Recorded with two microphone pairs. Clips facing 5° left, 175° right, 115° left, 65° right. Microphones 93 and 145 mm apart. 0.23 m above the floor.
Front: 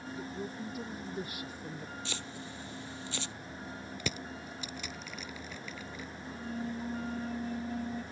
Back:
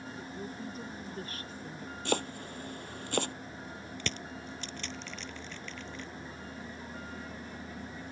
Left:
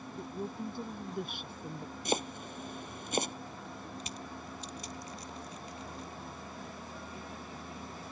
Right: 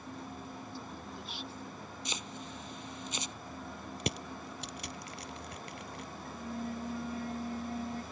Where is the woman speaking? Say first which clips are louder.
Front 2 dB, left 5 dB; 85° left; by 1.9 s 80° left.